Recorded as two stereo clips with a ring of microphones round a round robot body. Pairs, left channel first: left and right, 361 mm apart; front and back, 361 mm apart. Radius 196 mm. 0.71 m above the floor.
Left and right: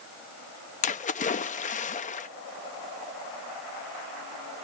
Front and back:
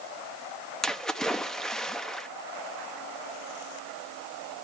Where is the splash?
85° left, 0.6 m.